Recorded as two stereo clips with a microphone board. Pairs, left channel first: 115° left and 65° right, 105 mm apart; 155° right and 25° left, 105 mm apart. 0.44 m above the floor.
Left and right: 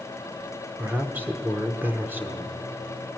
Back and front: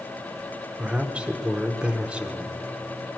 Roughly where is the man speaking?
Ahead right.